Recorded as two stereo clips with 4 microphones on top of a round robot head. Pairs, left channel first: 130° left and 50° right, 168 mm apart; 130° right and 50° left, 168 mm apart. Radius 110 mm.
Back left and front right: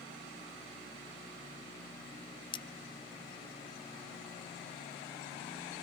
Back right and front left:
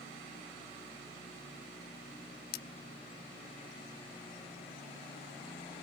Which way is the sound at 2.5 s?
165° right.